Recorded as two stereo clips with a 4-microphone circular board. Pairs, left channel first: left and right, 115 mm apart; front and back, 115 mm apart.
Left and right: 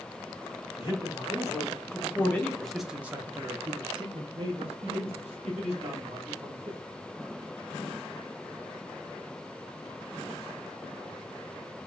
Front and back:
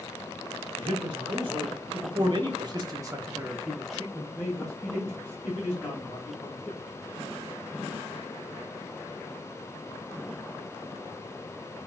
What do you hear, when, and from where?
0.8 s a man speaking: 140° left, 1.7 m; by 6.8 s 65° right, 2.5 m